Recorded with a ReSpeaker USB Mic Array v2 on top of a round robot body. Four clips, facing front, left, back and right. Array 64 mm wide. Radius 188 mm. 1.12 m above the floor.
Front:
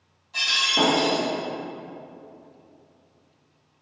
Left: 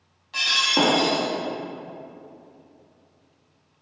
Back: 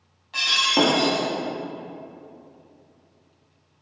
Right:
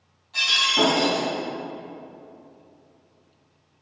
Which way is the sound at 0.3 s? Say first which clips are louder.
Even, back 3 dB; 155° left.